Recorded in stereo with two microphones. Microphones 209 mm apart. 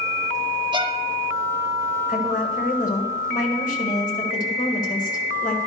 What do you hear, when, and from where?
0.7 s a violin: 25° right (ahead or behind), 0.9 m
2.1 s a woman speaking: 40° left (ahead or behind), 1.8 m